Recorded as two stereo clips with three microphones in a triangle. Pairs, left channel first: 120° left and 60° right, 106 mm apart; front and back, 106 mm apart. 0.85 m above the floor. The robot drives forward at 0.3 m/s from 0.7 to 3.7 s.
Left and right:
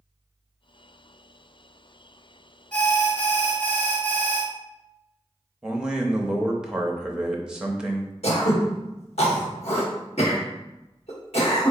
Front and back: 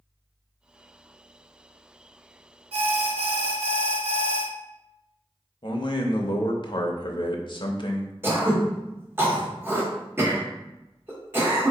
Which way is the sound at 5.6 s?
20° left.